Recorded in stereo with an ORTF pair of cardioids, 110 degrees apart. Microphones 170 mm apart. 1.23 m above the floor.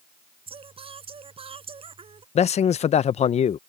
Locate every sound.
0.5 s singing: 35° right
2.4 s a man speaking: 40° left